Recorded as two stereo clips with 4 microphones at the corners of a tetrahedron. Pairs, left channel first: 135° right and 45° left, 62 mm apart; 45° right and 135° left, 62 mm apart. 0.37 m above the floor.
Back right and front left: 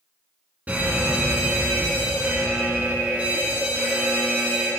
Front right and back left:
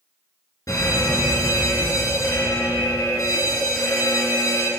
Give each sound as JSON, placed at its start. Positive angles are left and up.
{"t": 0.7, "sound": "an alarm", "azimuth_deg": -20, "distance_m": 3.5}